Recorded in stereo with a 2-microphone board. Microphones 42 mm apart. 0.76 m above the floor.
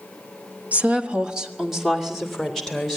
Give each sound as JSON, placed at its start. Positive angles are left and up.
{"t": 0.7, "sound": "a woman speaking", "side_deg": -35, "distance_m": 1.2}